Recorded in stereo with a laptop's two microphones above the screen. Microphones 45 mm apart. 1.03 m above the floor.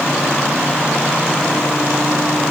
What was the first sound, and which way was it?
Only background noise.